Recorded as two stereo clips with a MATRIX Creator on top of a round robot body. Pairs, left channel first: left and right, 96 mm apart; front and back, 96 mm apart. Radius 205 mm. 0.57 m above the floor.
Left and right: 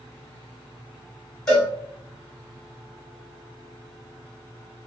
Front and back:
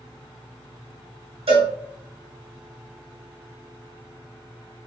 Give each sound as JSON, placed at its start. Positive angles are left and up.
{"t": 1.5, "sound": "a cowbell", "azimuth_deg": 170, "distance_m": 1.6}